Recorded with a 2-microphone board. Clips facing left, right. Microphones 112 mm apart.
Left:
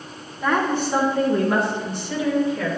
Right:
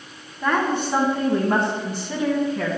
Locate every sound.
0.4 s a woman speaking: 5° right (ahead or behind), 1.8 m; by 2.8 s 55° right (ahead or behind), 2.5 m